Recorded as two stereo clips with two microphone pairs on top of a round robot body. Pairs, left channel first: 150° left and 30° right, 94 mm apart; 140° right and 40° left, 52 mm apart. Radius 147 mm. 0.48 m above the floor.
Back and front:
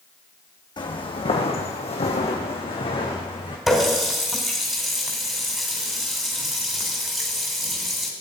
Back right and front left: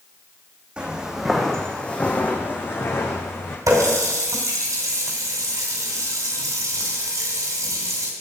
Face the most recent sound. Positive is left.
turn(degrees=55)